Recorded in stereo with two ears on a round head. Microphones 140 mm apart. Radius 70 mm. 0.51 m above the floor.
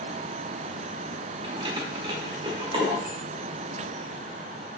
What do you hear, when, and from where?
1.4 s keys jangling: 30° right (ahead or behind), 0.9 m